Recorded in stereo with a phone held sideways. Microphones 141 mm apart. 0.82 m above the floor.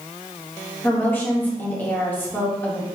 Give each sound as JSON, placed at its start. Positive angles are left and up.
{"t": 0.8, "sound": "a woman speaking", "side_deg": 15, "distance_m": 1.0}